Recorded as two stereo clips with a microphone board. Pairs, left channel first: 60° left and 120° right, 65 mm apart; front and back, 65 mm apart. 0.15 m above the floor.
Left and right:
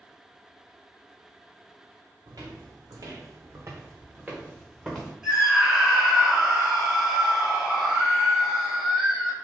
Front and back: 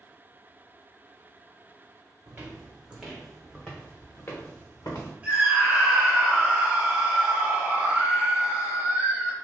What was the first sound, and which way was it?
Footsteps, 125° right.